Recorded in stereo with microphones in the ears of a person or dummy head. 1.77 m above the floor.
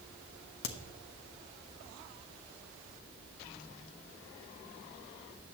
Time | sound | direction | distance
0.6 | a crack | 60° left (ahead or behind) | 0.8 m